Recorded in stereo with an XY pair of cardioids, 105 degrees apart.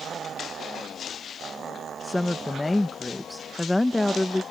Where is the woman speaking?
10° left.